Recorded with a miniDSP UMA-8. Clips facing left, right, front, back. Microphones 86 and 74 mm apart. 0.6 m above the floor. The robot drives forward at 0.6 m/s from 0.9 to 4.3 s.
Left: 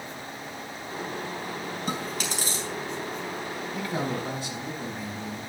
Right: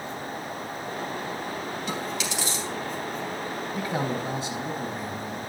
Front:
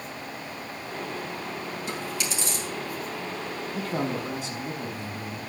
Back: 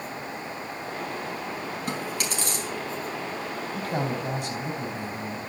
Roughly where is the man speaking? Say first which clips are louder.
Right 1 dB, even; behind.